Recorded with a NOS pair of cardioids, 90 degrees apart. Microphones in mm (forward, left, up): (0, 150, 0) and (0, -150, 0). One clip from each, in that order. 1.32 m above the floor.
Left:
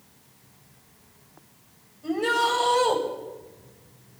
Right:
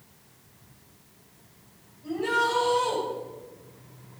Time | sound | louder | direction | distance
2.0 | a shout | left 2 dB | 65° left | 8.5 m